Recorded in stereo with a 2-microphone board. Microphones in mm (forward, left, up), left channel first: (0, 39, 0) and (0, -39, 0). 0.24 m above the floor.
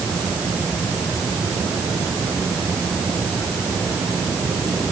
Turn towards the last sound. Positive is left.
No sound to turn to.